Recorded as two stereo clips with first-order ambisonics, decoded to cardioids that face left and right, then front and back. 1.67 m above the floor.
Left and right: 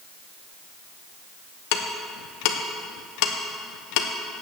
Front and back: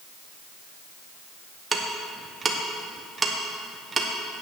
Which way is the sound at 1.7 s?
105° left.